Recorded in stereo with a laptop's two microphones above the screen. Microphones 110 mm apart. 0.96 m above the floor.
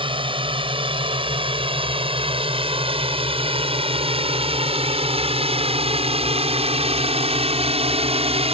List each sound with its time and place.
0.0 s a drone: 50° right (ahead or behind); by 8.5 s 60° right (ahead or behind)